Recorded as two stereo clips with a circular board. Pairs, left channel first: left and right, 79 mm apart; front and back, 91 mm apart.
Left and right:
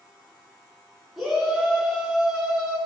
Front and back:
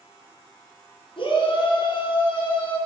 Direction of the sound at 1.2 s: Straight ahead.